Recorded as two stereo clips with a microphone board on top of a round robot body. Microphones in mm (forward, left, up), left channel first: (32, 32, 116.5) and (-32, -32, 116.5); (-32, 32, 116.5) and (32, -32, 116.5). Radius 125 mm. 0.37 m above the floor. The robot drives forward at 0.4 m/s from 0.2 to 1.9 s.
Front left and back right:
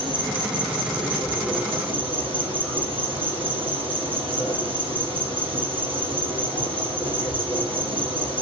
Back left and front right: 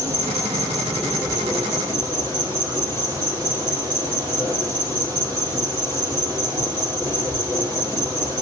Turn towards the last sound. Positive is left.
turn(degrees=-110)